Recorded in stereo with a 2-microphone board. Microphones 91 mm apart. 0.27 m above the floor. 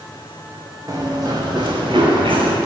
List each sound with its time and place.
0.9 s running footsteps: 40° right (ahead or behind), 4.5 m; by 2.5 s 70° right (ahead or behind), 4.5 m